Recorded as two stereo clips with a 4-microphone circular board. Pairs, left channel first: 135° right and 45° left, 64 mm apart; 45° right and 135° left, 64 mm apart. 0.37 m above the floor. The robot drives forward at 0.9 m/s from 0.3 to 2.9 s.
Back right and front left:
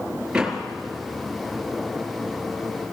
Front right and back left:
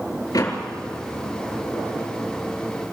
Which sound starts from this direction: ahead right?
A door slam, at 0.3 s.